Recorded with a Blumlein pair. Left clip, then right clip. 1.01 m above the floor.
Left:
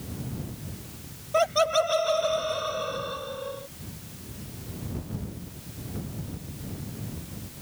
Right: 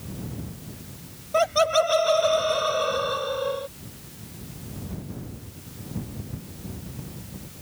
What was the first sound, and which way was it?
Laughter, 5° right.